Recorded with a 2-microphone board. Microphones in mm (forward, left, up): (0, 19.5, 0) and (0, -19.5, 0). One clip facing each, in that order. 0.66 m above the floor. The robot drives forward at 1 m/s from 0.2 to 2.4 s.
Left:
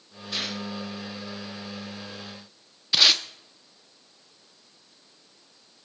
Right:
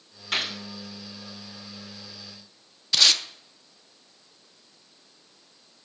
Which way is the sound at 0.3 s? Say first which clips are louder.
Right 4 dB; 70° right (ahead or behind).